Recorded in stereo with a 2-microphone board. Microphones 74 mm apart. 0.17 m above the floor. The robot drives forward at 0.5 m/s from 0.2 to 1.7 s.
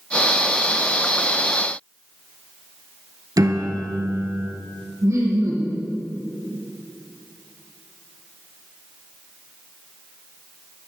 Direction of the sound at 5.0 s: 40° right (ahead or behind).